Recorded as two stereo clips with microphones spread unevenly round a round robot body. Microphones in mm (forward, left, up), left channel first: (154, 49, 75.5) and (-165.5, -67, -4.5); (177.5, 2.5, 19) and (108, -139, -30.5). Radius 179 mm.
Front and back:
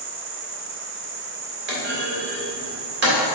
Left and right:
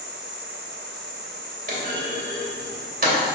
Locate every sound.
0.0 s an insect: 145° right, 1.4 m
1.7 s a clunk: 110° right, 2.5 m